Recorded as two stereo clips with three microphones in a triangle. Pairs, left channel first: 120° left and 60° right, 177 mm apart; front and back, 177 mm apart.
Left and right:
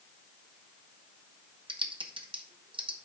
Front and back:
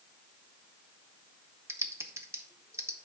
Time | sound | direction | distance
1.7 | typing on a keyboard | 110° right | 0.8 m